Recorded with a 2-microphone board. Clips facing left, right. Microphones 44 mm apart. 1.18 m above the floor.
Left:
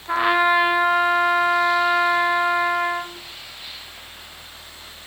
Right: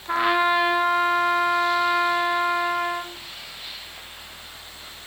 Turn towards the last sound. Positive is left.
turn(degrees=10)  # may be behind; listen again after turning